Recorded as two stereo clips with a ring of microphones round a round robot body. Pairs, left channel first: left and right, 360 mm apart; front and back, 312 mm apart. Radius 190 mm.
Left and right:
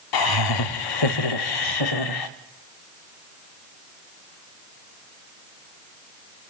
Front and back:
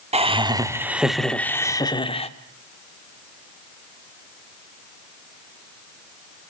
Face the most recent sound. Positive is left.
turn(degrees=70)